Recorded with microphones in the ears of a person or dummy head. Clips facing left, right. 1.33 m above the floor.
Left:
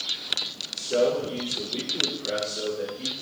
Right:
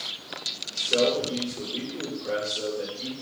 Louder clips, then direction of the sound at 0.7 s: Left 1 dB; 10° left (ahead or behind).